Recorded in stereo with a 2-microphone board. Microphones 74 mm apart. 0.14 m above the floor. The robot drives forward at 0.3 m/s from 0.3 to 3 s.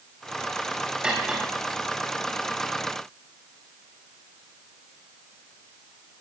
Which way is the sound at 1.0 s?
15° right (ahead or behind).